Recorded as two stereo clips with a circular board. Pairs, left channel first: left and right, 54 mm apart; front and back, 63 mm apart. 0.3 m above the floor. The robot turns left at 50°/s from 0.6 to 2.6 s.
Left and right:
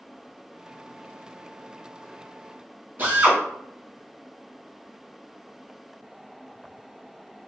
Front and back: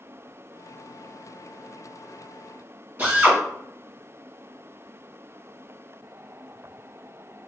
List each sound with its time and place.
3.0 s a drill: 130° right, 1.2 m